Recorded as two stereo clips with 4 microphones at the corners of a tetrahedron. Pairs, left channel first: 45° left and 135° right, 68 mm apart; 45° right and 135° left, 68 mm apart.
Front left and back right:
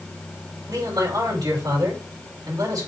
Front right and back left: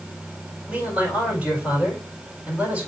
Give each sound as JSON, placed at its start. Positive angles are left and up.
{"t": 0.7, "sound": "a man speaking", "azimuth_deg": -155, "distance_m": 4.5}